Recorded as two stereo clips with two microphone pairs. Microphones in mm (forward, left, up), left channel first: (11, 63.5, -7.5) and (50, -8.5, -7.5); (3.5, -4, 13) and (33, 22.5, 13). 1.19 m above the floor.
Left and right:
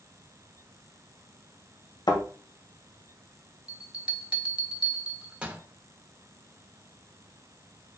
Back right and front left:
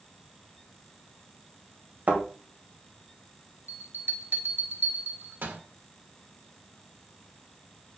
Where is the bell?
15° left, 1.1 m.